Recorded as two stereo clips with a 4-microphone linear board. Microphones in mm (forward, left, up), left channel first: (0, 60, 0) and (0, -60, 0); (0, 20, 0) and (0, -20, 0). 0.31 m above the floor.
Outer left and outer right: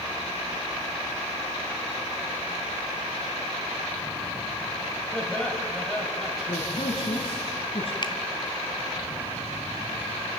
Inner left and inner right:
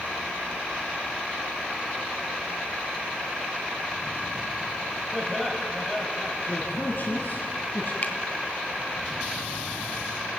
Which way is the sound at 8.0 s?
40° left (ahead or behind).